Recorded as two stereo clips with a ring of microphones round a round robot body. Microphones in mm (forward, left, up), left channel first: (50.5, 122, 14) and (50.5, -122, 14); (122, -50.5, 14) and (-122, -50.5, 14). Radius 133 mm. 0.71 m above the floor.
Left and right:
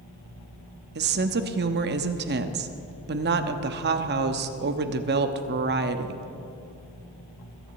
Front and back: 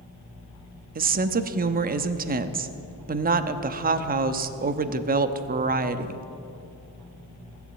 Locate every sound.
0.9 s a woman speaking: 130° right, 0.8 m